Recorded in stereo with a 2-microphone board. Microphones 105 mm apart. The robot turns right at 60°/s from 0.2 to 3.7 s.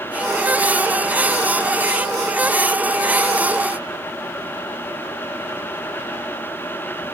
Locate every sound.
Only background noise.